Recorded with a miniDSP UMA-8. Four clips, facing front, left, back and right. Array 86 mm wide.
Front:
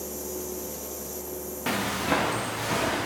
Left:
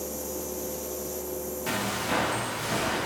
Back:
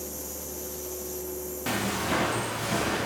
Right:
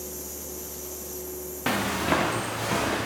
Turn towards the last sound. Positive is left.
turn(degrees=-55)